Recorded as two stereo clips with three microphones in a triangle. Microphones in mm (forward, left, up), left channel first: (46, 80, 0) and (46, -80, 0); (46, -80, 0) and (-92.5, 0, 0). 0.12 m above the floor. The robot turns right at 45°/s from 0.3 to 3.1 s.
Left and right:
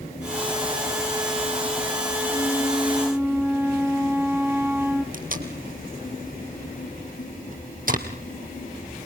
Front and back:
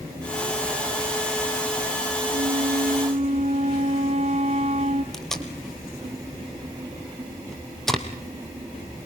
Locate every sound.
2.3 s a flute: 160° left, 3 m; by 5.0 s 160° right, 3 m
5.1 s tape being pulled: 120° right, 2.5 m